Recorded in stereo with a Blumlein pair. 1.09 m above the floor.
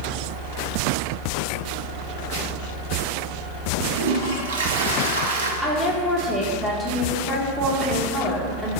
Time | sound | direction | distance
4.0 | a toilet flushing | 60° right | 1.3 m
5.6 | a woman speaking | 10° right | 3 m